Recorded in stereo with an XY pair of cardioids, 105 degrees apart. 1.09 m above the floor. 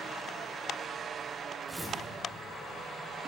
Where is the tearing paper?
10° right, 3 m.